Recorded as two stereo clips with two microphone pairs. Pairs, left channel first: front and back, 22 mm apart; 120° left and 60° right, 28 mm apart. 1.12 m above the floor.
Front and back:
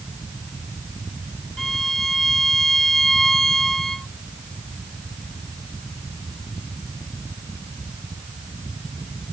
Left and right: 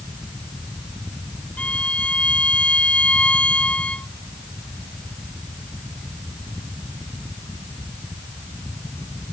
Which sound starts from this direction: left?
A violin, at 1.6 s.